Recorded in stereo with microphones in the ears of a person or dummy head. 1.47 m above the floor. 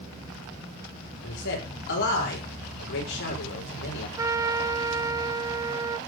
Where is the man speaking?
65° left (ahead or behind), 6 m.